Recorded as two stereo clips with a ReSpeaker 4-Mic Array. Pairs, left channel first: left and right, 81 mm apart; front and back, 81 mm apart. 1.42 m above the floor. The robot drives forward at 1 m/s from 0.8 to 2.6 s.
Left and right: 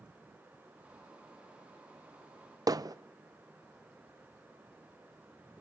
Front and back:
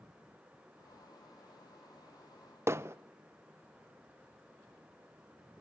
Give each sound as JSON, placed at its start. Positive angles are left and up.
{"t": 2.7, "sound": "hammering", "azimuth_deg": -125, "distance_m": 0.6}